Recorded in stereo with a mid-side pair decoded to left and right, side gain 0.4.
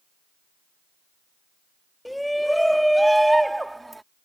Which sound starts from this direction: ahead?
A shout, at 2.0 s.